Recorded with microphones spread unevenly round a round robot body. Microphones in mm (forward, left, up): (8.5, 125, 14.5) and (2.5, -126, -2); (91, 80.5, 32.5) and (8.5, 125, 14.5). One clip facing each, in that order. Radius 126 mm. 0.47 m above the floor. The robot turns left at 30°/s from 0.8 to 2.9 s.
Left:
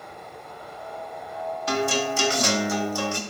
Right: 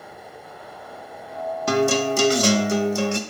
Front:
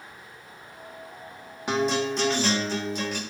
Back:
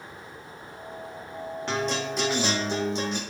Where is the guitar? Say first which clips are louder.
Right 6 dB, front 5 dB; 115° right, 0.6 m; by 3.2 s 150° right, 0.6 m.